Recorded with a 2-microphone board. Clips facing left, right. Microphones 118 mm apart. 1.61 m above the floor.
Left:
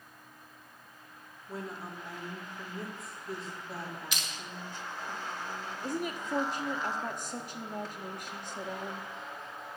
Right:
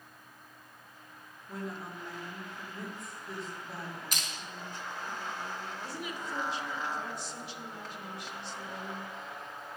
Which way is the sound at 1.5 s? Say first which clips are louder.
Even; centre (ahead or behind).